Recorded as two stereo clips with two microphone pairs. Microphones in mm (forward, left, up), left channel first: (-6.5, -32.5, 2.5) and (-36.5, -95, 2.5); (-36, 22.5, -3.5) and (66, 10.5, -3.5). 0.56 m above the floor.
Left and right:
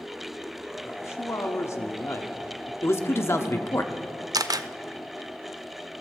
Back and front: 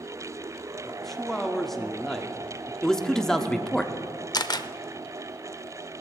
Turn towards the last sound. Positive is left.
turn(degrees=-140)